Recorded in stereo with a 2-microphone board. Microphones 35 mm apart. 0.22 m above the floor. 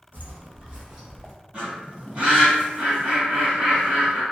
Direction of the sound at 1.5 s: 40° right (ahead or behind).